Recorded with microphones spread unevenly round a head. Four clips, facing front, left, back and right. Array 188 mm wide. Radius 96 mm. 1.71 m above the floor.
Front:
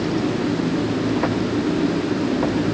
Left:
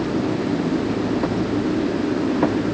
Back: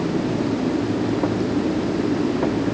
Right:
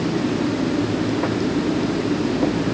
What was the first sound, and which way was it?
Only background noise.